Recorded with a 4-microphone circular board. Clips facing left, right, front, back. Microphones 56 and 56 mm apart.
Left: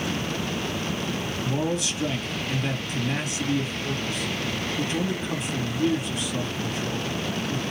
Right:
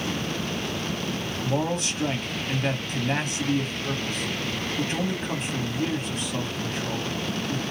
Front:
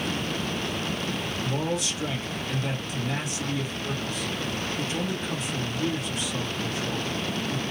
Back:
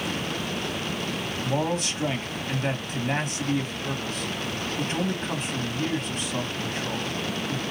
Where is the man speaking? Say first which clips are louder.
Right 1 dB, back 3 dB; 135° right, 1.3 m.